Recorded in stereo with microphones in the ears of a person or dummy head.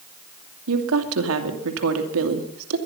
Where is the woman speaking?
75° right (ahead or behind), 2.5 m.